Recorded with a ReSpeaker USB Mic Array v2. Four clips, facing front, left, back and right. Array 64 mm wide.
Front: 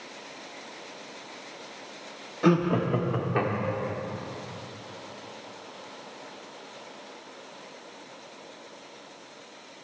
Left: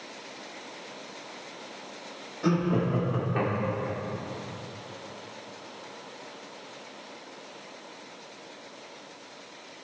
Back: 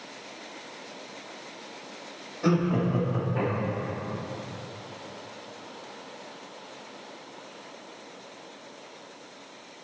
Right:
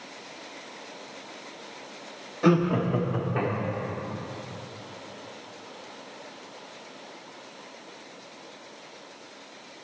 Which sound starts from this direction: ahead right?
Laughter, at 2.4 s.